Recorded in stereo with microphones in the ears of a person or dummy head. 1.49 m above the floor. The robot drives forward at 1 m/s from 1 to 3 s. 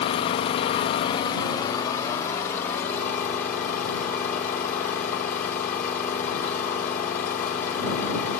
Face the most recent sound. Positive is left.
turn(degrees=15)  # may be behind; listen again after turning